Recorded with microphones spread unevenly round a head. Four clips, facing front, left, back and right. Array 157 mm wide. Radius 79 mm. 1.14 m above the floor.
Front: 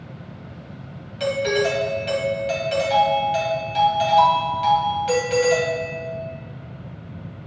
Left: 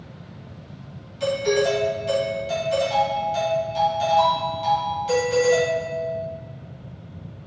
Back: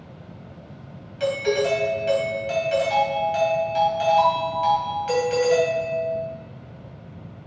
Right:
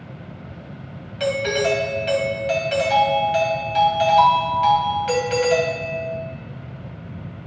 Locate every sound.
1.2 s a doorbell: 55° right, 2 m